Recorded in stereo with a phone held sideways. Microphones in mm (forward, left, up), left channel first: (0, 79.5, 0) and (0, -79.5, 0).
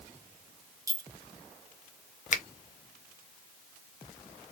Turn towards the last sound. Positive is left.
turn(degrees=50)  # may be behind; listen again after turning